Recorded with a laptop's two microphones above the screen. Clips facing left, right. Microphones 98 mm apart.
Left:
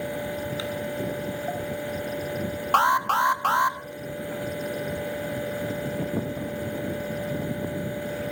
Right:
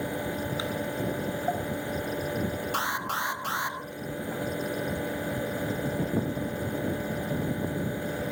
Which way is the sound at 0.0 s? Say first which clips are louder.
Left 1 dB; 20° right (ahead or behind).